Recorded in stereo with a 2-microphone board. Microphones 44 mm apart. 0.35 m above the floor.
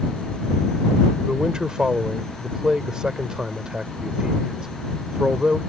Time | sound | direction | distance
1.2 | a man speaking | 20° right (ahead or behind) | ?